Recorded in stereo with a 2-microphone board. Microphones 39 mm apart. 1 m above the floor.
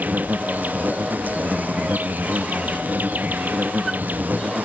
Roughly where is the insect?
Right.